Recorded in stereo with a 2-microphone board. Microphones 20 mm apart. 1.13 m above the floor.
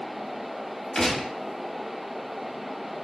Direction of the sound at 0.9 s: 25° left (ahead or behind).